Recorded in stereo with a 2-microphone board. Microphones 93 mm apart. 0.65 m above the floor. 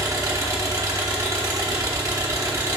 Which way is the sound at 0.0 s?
40° right (ahead or behind).